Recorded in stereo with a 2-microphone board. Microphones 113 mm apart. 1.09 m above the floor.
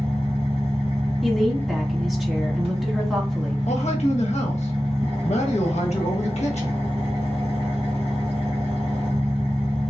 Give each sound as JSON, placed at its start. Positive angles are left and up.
{"t": 0.0, "sound": "an engine running", "side_deg": -55, "distance_m": 2.5}
{"t": 1.2, "sound": "a woman speaking", "side_deg": -5, "distance_m": 1.7}
{"t": 3.7, "sound": "a man speaking", "side_deg": 65, "distance_m": 1.2}